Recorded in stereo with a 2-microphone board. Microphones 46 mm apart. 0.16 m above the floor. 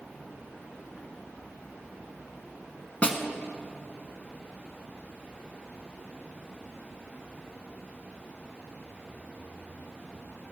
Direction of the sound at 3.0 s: 35° left (ahead or behind).